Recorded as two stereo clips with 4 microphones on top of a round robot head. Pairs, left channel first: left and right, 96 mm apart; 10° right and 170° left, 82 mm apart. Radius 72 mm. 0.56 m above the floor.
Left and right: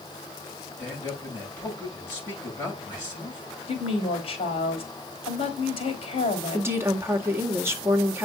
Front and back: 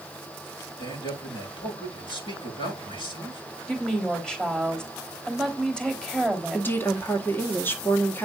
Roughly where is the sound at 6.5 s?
Ahead right.